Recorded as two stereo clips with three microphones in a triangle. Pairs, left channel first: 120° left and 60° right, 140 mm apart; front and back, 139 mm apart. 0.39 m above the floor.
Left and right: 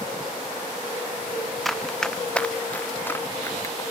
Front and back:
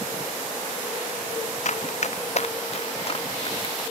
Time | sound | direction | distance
1.6 | running footsteps | 30° left | ?